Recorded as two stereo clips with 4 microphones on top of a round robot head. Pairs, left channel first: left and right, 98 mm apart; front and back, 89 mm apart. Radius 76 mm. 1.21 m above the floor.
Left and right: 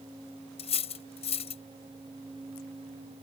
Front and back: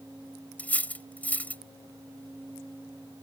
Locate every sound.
0.6 s cutlery clinking: 75° left